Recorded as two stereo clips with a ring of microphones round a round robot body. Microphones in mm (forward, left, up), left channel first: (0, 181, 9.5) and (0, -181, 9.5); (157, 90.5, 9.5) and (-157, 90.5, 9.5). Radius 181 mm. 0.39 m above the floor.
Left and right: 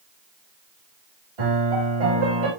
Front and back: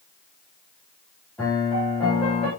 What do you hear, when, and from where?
1.4 s a piano: 85° right, 8 m